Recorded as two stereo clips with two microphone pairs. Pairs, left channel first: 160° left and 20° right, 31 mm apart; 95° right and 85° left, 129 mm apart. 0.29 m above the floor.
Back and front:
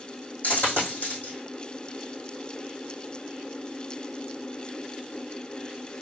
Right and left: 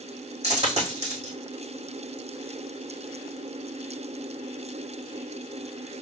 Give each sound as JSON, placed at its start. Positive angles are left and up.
{"t": 0.4, "sound": "a dropped coin", "azimuth_deg": 125, "distance_m": 3.0}